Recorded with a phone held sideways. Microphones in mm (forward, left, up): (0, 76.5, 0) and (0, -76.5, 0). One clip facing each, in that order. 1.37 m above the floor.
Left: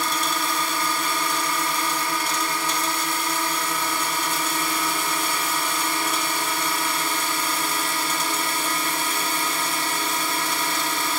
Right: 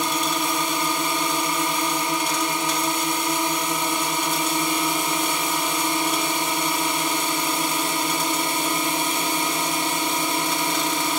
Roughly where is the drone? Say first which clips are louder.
Right 2 dB; centre.